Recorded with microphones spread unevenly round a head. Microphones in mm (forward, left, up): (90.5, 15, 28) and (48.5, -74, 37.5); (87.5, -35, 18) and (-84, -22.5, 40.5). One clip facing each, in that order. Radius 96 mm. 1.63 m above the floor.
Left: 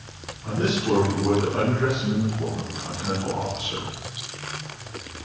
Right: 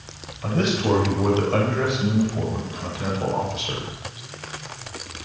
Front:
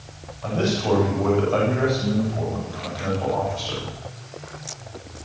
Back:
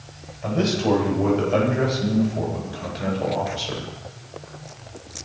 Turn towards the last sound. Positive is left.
turn(degrees=-125)